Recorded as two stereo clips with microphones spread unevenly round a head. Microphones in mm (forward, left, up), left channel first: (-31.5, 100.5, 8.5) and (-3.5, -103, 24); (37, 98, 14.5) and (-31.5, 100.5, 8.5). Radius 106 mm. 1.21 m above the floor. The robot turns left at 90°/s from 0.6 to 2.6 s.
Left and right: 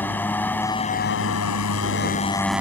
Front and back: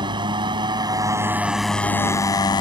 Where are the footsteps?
No footsteps in this recording.